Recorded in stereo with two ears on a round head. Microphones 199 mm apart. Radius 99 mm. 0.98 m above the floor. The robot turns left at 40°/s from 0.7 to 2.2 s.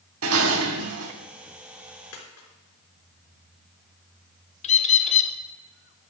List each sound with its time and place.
0.2 s dishes clattering: 65° right (ahead or behind), 1.4 m; by 1.1 s 85° right, 1.4 m
2.1 s a dropped coin: 80° left, 3.5 m
4.6 s a bird: 30° left (ahead or behind), 0.8 m